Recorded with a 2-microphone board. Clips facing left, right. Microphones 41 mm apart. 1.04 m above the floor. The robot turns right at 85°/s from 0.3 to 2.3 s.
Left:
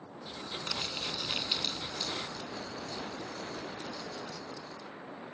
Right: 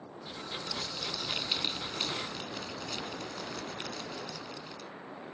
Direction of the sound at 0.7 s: 120° left.